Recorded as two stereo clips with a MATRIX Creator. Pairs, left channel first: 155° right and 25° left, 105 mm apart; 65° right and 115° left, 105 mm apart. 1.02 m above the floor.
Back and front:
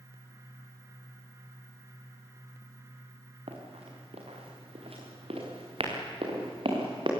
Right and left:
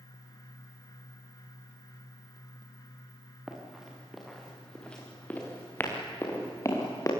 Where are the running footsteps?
30° left, 4.5 m; by 7.1 s 10° right, 6 m.